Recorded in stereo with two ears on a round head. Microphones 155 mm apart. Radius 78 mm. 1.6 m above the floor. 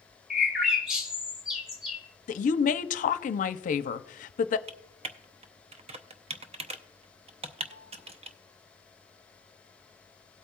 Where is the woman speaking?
50° left (ahead or behind), 0.6 m.